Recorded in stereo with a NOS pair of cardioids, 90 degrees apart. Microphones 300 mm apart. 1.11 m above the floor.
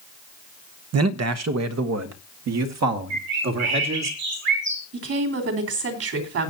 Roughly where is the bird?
Ahead right.